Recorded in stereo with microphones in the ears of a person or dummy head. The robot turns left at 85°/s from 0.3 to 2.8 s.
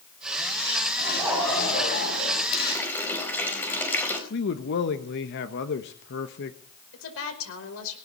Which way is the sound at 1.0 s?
145° right.